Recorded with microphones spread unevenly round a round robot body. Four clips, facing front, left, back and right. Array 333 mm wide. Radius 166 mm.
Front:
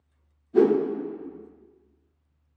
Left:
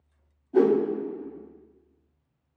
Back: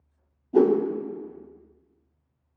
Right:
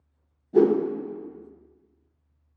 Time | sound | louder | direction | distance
0.5 | a whoosh | right 1 dB, even | 145° right | 1.1 m